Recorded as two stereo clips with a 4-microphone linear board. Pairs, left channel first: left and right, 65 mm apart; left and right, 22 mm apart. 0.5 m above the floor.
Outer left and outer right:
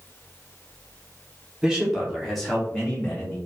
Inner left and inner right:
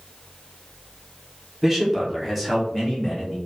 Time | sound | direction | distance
1.6 | a man speaking | 10° right (ahead or behind) | 1.2 m